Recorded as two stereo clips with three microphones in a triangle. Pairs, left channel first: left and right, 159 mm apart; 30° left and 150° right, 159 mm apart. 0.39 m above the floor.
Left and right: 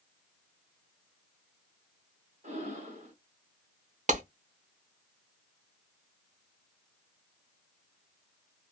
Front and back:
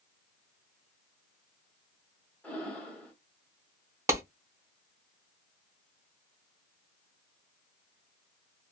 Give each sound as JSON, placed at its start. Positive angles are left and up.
{"t": 2.4, "sound": "breathing", "azimuth_deg": -50, "distance_m": 1.5}
{"t": 4.1, "sound": "a clap", "azimuth_deg": -80, "distance_m": 0.8}